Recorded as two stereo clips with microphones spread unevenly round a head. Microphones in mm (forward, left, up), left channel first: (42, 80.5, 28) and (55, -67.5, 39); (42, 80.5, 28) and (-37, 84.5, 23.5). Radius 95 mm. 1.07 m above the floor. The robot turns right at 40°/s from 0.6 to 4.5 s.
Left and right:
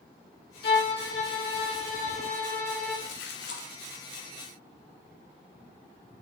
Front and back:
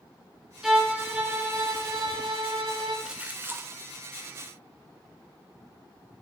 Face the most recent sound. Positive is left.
turn(degrees=155)